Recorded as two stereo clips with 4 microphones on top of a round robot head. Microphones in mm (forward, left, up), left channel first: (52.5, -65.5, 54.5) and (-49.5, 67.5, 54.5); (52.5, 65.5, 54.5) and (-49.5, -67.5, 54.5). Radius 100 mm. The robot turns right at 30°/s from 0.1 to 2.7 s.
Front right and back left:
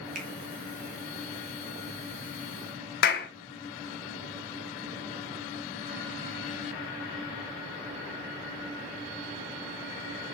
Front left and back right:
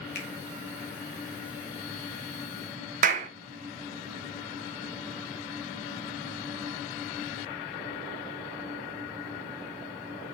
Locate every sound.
0.1 s a finger snap: 85° left, 1.5 m; by 0.3 s 90° left, 1.5 m
3.0 s a clap: 85° right, 0.6 m